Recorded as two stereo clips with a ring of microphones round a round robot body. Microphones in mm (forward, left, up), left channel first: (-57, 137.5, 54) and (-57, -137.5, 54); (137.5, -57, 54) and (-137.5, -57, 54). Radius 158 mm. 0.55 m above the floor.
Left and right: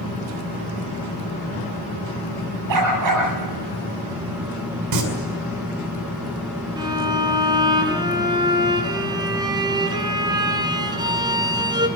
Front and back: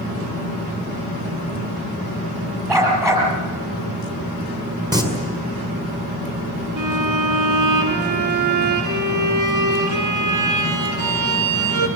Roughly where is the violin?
Behind.